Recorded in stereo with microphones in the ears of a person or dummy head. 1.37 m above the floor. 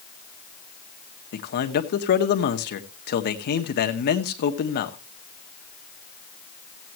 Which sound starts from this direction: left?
A man speaking, at 1.3 s.